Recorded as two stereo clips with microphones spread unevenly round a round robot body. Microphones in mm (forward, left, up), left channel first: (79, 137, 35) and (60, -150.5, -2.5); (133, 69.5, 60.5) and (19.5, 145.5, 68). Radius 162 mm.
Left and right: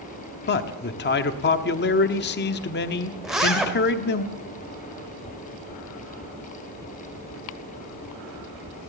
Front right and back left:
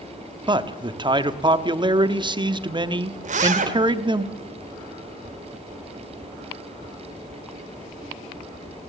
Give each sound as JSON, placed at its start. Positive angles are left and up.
{"t": 0.5, "sound": "a man speaking", "azimuth_deg": 120, "distance_m": 1.2}
{"t": 3.2, "sound": "a zipper", "azimuth_deg": 180, "distance_m": 1.4}